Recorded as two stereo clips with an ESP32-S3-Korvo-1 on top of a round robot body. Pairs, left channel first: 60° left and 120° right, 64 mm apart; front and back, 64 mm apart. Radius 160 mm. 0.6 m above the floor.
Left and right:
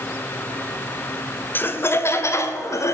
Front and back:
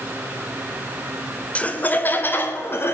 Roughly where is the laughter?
Ahead left.